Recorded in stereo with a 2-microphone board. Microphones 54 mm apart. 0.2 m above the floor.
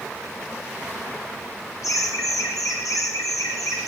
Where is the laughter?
80° left, 9.5 m; by 3.9 s 85° left, 12 m.